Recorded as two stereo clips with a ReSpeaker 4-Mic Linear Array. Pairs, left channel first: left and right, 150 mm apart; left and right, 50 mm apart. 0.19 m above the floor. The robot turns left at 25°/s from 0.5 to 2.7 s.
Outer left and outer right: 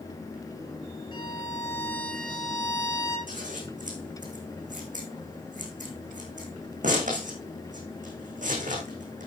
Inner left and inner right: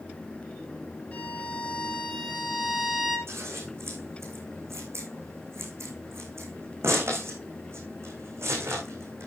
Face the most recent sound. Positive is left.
turn(degrees=-60)  # may be behind; listen again after turning